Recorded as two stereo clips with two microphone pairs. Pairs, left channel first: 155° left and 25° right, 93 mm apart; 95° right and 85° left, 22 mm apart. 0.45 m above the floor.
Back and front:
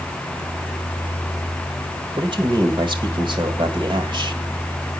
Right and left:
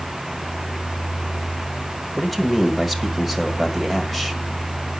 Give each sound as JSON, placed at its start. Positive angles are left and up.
{"t": 2.2, "sound": "a man speaking", "azimuth_deg": -10, "distance_m": 1.7}